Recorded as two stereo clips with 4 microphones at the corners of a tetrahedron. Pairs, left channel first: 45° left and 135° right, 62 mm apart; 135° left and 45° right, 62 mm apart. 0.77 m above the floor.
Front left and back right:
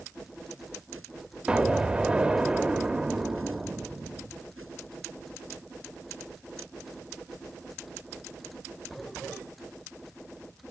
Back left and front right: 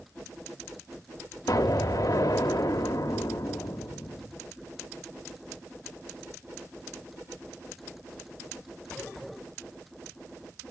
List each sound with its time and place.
1.5 s an explosion: 150° left, 0.6 m